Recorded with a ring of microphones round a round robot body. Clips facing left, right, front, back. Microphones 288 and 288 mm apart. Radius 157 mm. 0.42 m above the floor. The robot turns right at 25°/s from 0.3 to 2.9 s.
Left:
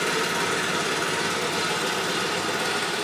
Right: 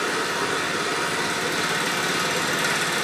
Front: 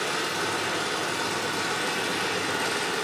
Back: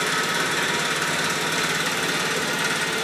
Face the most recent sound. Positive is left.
turn(degrees=-125)